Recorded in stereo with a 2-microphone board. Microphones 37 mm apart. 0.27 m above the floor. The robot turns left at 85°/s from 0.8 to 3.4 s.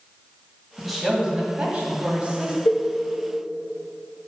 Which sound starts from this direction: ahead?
A woman speaking, at 0.8 s.